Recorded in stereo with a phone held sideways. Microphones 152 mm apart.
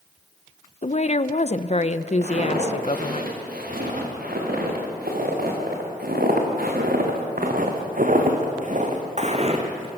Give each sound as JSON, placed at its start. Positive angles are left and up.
{"t": 0.8, "sound": "a woman speaking", "side_deg": 45, "distance_m": 0.7}
{"t": 2.2, "sound": "footsteps", "side_deg": -70, "distance_m": 7.0}